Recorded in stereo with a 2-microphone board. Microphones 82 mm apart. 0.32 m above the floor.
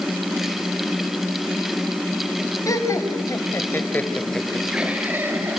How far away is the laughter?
About 3 m.